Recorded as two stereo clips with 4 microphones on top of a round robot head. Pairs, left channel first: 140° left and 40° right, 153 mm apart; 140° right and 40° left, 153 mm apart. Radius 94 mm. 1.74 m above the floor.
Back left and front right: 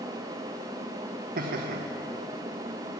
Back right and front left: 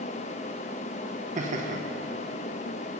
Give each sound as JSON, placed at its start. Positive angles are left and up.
{"t": 1.4, "sound": "laughter", "azimuth_deg": -5, "distance_m": 0.9}